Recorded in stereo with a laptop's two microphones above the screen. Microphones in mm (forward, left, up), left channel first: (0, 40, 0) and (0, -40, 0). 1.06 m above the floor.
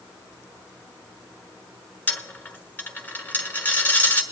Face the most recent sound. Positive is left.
turn(degrees=20)  # may be behind; listen again after turning